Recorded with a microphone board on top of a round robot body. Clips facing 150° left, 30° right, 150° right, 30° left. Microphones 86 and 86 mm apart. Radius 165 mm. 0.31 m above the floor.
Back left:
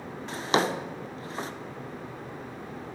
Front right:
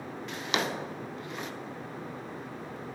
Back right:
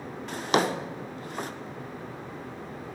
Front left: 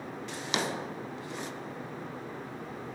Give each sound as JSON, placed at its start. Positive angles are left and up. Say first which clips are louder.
{"t": 0.3, "sound": "a drawer", "louder": "back left 6 dB, back right 8 dB", "azimuth_deg": -165, "distance_m": 0.7}